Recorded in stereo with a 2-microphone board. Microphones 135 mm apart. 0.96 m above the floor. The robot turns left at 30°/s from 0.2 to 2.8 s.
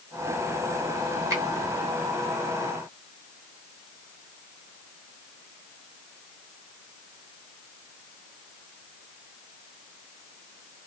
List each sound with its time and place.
1.3 s a finger snap: 20° right (ahead or behind), 1.2 m; by 1.4 s 25° right (ahead or behind), 1.2 m